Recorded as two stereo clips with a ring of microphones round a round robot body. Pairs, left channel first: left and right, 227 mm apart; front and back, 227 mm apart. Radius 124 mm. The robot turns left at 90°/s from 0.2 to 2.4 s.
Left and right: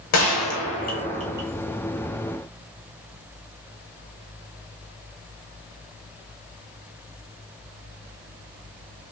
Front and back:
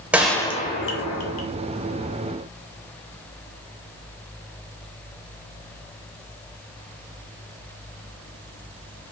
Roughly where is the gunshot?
Left.